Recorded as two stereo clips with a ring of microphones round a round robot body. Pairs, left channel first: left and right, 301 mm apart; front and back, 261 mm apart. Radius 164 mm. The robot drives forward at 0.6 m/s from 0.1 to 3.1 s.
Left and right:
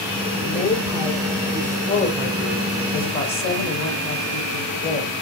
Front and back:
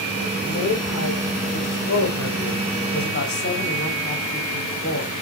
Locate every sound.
0.4 s a woman speaking: 25° left, 3.5 m; by 5.1 s 45° left, 2.5 m